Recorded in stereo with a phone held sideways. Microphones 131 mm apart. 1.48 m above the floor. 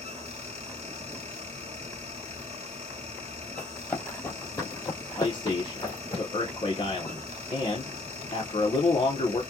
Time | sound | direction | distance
0.0 | a fan | 55° right (ahead or behind) | 1.8 m
3.6 | running footsteps | 10° left (ahead or behind) | 2.5 m
5.2 | a man speaking | 40° left (ahead or behind) | 1.3 m